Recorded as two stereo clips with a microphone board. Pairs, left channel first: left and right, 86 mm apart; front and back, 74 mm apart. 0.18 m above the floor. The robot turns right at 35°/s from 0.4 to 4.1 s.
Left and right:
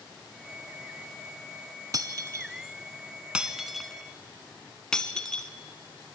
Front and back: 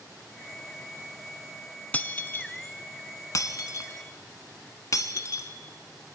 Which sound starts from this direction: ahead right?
Breaking glass, at 1.9 s.